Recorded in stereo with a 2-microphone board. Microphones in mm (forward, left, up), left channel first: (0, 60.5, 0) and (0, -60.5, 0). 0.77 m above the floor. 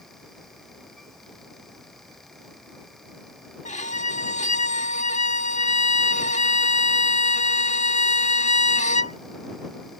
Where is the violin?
80° left.